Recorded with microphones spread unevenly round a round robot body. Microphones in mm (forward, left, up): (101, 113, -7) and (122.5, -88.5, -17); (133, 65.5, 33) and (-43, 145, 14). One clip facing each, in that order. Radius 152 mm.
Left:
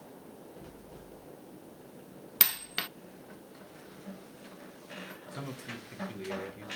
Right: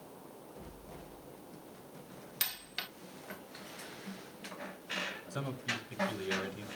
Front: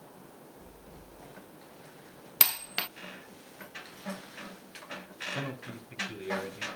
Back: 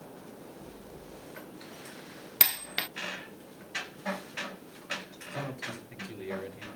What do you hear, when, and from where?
2.4 s a dropped coin: 75° left, 0.5 m
5.3 s a man speaking: 105° right, 5.5 m